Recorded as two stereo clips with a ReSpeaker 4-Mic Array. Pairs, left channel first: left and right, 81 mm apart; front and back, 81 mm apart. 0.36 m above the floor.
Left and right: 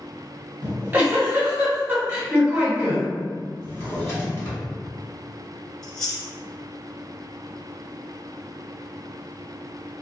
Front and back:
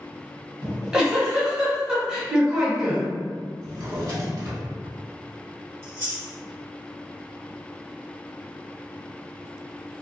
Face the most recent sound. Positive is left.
turn(degrees=170)